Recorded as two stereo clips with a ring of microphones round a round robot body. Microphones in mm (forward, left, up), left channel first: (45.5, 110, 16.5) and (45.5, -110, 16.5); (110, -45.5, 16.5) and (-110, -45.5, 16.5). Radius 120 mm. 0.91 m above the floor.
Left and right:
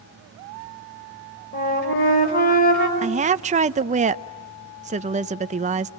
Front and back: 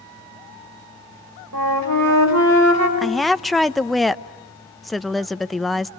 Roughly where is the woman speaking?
Right.